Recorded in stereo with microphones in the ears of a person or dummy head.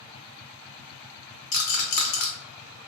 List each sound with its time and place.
1.5 s a rattle: 45° left (ahead or behind), 0.5 m